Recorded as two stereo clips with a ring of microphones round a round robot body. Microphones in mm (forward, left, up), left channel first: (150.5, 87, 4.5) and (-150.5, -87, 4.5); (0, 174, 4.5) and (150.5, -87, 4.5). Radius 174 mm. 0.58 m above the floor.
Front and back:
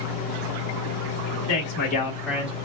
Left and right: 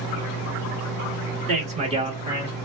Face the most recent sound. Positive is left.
turn(degrees=-140)